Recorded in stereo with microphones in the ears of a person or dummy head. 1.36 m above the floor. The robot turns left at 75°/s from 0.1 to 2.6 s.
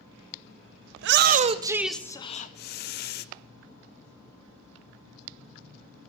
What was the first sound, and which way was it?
A shout, 110° right.